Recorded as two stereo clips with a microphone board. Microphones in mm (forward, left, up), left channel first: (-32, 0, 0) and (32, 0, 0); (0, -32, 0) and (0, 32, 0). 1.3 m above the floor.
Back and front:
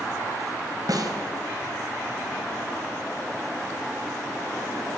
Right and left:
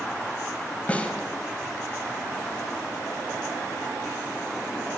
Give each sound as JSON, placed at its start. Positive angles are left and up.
{"t": 0.9, "sound": "a snare drum", "azimuth_deg": -20, "distance_m": 5.0}